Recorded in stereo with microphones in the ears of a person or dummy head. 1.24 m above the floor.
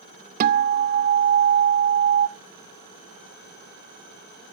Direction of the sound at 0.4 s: 45° right (ahead or behind).